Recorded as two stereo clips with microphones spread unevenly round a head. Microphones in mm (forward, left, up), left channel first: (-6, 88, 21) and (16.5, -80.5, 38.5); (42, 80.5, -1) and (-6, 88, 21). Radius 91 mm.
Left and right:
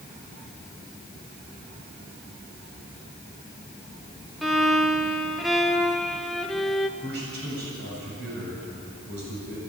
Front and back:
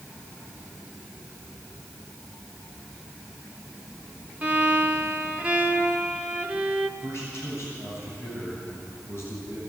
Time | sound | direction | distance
4.4 | a violin | 165° right | 0.9 m
7.0 | a man speaking | 115° right | 8 m